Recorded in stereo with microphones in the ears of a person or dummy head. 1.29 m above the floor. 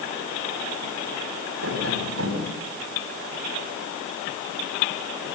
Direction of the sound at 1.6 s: 85° right.